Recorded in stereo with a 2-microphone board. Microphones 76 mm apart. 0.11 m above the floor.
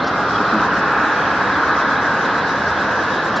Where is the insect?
Centre (ahead or behind), 0.9 m.